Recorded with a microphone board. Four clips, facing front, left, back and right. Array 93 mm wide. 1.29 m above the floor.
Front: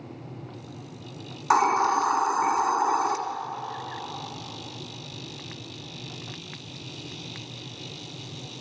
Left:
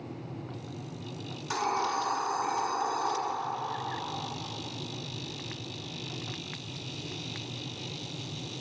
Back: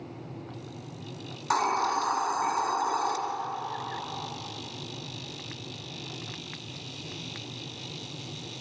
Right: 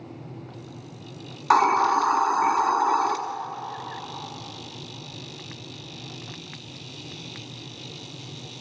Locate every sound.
1.5 s a hiss: 75° right, 1.5 m